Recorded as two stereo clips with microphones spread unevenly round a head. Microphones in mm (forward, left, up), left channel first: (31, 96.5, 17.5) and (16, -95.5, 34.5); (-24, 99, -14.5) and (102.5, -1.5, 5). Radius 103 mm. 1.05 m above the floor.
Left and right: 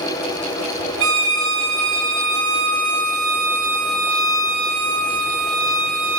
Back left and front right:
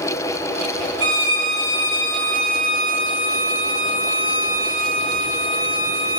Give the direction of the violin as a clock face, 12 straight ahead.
3 o'clock.